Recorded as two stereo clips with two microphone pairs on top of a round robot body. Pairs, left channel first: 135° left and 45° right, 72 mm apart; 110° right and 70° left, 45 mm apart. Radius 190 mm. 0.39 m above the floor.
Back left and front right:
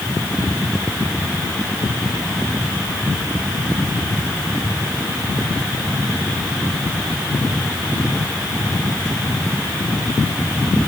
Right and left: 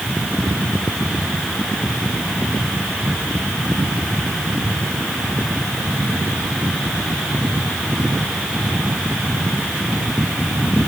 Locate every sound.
Only background noise.